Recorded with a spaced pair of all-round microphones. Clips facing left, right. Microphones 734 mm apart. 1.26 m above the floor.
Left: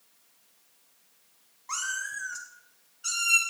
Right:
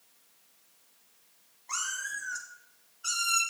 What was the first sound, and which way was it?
A cat meowing, 40° left (ahead or behind).